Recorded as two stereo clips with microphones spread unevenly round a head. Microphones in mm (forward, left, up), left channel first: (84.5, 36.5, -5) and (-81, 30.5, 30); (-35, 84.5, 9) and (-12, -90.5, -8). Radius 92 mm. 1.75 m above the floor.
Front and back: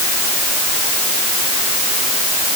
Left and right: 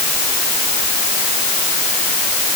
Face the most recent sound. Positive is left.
No sound to turn to.